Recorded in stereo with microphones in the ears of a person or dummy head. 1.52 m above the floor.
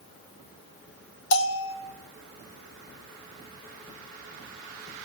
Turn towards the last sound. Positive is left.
turn(degrees=70)  # may be behind; listen again after turning